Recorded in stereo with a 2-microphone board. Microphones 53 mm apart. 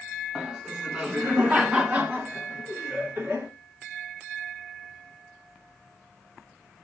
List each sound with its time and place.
0.3 s laughter: 10° right (ahead or behind), 1.7 m; by 3.5 s 30° right (ahead or behind), 3 m